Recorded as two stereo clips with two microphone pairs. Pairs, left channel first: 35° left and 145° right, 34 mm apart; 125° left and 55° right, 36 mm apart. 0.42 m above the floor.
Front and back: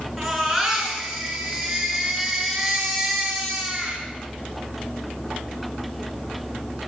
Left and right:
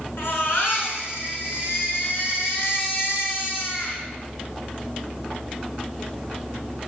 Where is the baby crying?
125° left, 5 m.